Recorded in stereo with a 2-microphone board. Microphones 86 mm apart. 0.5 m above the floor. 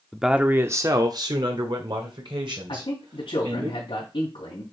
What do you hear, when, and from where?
0.1 s a man speaking: centre (ahead or behind), 0.7 m; by 3.7 s 70° right (ahead or behind), 3 m
2.7 s a man speaking: 75° left (ahead or behind), 3 m